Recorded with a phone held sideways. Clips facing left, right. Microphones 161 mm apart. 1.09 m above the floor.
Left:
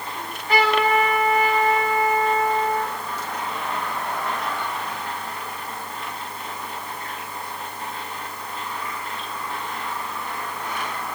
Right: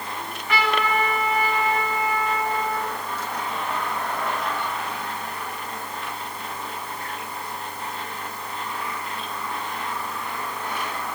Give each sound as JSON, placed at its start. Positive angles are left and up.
{"t": 0.1, "sound": "a trumpet", "side_deg": 40, "distance_m": 5.0}